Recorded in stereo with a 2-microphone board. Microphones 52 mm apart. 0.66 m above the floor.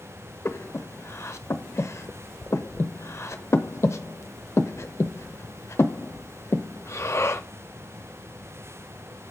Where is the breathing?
60° left (ahead or behind), 0.7 m.